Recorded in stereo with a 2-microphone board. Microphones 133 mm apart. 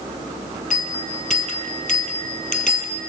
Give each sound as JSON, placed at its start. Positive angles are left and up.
{"t": 0.7, "sound": "a bell", "side_deg": 85, "distance_m": 1.2}